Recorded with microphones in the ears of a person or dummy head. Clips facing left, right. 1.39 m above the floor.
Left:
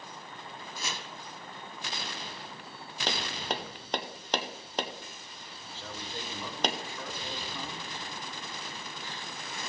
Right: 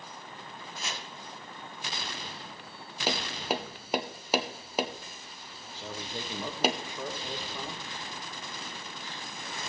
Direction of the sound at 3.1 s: 5° right (ahead or behind).